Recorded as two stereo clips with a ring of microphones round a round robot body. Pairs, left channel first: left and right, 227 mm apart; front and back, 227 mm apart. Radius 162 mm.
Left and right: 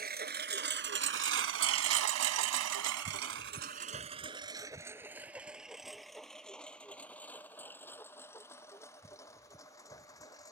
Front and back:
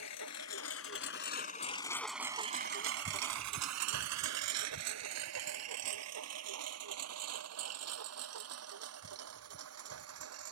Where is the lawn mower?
45° right; by 10.5 s 170° left.